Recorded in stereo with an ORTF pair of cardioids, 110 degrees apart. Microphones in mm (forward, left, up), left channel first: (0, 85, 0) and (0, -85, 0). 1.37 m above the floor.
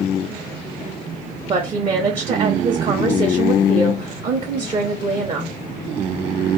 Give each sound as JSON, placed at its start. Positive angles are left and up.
{"t": 1.5, "sound": "a woman speaking", "azimuth_deg": -35, "distance_m": 0.7}